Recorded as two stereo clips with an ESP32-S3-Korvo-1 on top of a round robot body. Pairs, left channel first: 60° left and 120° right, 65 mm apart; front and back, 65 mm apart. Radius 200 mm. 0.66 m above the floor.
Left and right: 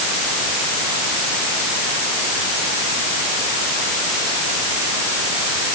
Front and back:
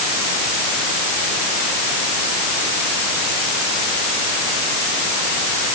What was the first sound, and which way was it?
Only background noise.